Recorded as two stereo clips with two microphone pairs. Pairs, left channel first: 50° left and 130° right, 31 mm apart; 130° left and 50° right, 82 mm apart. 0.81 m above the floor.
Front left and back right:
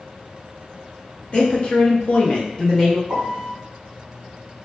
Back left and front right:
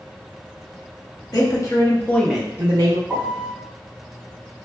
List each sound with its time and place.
1.3 s a woman speaking: 95° left, 0.9 m; by 3.0 s 30° right, 0.7 m
3.1 s a piano: 115° right, 0.8 m